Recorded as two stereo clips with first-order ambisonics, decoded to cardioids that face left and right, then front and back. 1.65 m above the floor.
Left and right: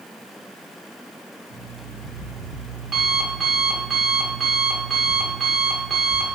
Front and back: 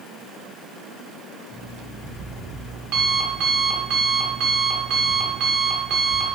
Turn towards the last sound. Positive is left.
turn(degrees=-155)